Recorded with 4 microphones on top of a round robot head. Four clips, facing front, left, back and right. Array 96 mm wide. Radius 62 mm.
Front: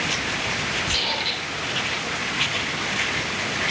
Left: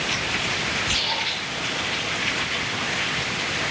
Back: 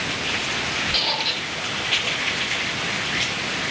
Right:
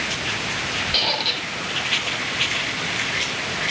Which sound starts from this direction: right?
A squeak, at 0.9 s.